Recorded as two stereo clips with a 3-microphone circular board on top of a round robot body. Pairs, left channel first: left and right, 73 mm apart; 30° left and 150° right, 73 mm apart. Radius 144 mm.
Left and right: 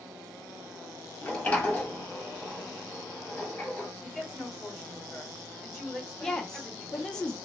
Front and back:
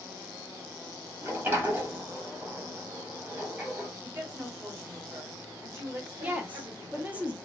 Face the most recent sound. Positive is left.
turn(degrees=160)